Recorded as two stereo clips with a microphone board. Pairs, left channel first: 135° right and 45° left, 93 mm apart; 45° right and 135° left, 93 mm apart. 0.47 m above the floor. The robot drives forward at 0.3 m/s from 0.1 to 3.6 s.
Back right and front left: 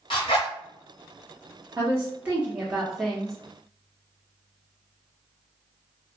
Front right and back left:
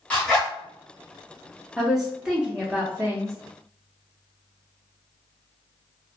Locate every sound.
0.1 s a zipper: 120° right, 1.0 m; by 0.5 s 125° right, 1.1 m
1.8 s a woman speaking: 45° left, 0.7 m; by 3.4 s 140° left, 0.7 m